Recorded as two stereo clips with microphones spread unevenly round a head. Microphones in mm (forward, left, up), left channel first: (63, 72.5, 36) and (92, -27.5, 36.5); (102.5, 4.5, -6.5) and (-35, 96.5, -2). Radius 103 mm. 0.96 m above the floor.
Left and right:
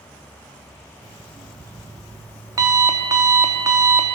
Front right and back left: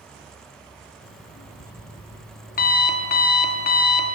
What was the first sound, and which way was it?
An alarm clock, 25° right.